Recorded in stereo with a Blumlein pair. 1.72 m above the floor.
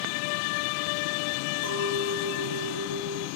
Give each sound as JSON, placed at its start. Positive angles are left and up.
{"t": 1.6, "sound": "a clink", "azimuth_deg": -65, "distance_m": 2.0}